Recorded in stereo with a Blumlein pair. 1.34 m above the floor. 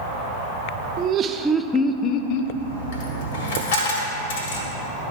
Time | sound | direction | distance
1.0 | laughter | 35° right | 0.7 m
2.5 | a dropped coin | 55° left | 1.9 m